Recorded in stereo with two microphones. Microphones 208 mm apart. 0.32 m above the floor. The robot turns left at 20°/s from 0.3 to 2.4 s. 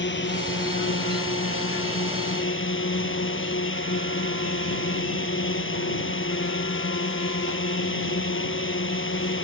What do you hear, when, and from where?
0.0 s a drone: 115° left; by 9.4 s 75° left